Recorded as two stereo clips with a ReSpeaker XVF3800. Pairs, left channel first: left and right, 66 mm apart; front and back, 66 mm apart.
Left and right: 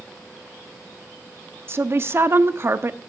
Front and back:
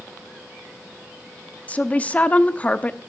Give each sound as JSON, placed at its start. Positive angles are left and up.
{"t": 1.7, "sound": "a woman speaking", "azimuth_deg": -60, "distance_m": 0.9}